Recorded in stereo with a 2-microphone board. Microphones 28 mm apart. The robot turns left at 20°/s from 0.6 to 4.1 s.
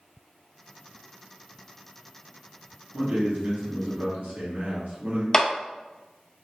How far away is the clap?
About 0.5 m.